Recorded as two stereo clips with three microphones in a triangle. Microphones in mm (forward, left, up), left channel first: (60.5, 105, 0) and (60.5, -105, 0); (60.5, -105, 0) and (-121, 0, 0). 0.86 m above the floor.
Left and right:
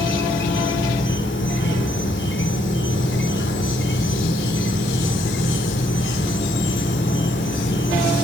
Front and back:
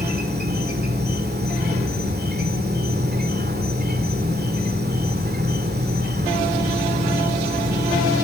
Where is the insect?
110° left, 2.5 m.